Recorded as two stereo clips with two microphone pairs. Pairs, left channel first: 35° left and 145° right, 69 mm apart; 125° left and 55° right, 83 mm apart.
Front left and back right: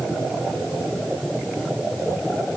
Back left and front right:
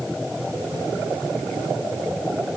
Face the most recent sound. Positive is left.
No sound to turn to.